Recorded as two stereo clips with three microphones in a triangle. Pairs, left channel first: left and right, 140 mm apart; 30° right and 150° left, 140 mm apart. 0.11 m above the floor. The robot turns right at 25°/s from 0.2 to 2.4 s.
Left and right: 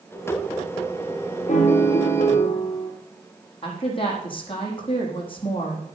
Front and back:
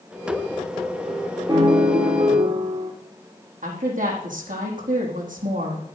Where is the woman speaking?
140° left, 4.5 m.